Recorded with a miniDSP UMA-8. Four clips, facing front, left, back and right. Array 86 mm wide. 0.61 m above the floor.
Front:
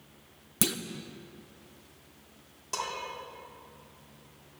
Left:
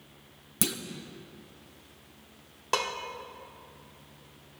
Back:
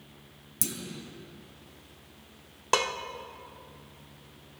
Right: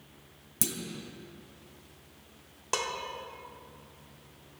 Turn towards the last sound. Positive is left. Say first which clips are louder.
# left 3 dB, back 8 dB
turn(degrees=165)